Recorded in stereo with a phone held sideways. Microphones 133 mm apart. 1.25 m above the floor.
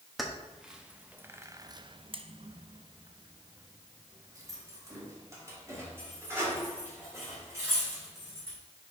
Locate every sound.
0.2 s keys jangling: centre (ahead or behind), 1.1 m; by 8.6 s 20° right (ahead or behind), 4 m